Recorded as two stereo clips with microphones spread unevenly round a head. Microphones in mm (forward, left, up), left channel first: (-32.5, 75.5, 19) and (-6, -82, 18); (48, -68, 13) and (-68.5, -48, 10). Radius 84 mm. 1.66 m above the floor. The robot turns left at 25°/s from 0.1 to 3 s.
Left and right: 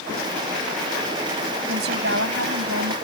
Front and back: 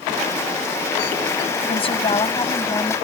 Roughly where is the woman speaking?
Ahead right.